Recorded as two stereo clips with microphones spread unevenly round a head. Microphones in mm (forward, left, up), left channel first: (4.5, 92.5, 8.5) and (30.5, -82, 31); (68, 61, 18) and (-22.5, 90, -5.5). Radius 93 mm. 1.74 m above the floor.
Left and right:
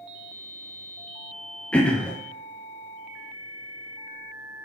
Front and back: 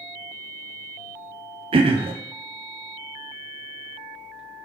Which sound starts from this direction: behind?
Throat clearing, at 1.7 s.